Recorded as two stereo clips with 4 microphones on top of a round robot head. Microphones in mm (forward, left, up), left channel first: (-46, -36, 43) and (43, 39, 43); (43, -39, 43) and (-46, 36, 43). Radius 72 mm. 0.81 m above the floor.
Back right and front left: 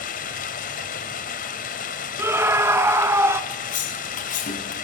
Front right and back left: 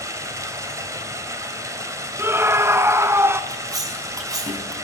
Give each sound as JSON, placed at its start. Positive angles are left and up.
{"t": 0.0, "sound": "running water", "azimuth_deg": -155, "distance_m": 1.9}
{"t": 2.2, "sound": "a scream", "azimuth_deg": 90, "distance_m": 0.9}
{"t": 3.5, "sound": "cutlery clinking", "azimuth_deg": -160, "distance_m": 5.0}